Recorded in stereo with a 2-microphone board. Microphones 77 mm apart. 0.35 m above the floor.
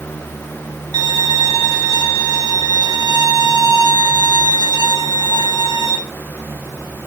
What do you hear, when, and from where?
0.9 s a violin: 65° right (ahead or behind), 3 m